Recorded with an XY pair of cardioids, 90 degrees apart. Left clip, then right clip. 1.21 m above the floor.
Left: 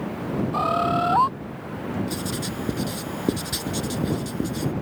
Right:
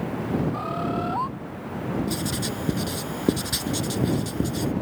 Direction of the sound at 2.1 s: 10° right.